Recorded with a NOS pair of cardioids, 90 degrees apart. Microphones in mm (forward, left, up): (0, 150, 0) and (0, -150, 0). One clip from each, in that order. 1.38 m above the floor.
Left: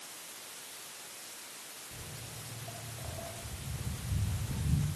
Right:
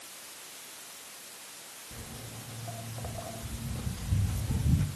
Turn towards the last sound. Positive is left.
turn(degrees=-55)